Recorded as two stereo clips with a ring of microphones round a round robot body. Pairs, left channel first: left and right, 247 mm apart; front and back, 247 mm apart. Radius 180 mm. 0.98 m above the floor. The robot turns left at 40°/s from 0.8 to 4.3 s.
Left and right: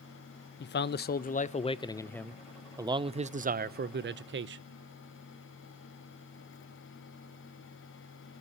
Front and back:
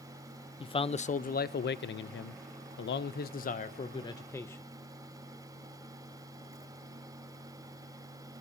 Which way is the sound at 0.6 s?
65° left.